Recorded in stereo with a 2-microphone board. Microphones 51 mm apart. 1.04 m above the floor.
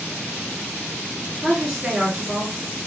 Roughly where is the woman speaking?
Centre.